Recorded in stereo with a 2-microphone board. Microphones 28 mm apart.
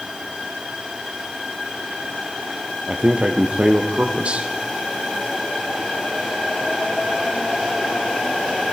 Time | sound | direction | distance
2.9 | a man speaking | 50° right (ahead or behind) | 3.5 m